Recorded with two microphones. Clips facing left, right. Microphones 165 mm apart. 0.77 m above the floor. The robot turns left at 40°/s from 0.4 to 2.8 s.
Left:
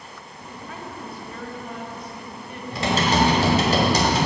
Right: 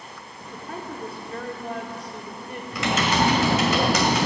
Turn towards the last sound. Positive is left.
turn(degrees=35)  # may be behind; listen again after turning